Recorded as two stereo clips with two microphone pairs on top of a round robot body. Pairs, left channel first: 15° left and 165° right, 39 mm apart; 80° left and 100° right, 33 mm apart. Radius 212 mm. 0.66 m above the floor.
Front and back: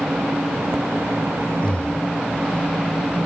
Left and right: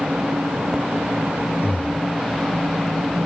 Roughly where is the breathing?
Left.